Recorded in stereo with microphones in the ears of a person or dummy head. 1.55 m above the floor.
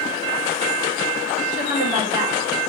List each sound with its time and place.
1.5 s a woman speaking: 45° right (ahead or behind), 2.5 m